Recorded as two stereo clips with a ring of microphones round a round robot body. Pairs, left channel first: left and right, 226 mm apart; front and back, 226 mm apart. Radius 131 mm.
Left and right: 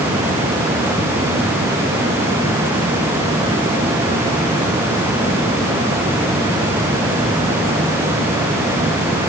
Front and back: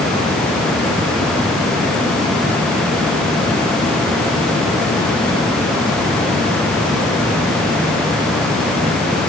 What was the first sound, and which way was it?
Only background noise.